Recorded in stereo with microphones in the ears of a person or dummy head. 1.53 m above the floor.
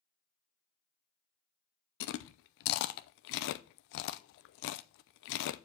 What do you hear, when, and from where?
2.0 s chewing: 65° left (ahead or behind), 0.6 m